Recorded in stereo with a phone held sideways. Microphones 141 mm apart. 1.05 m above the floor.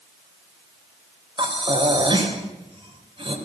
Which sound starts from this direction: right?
Breathing, at 1.4 s.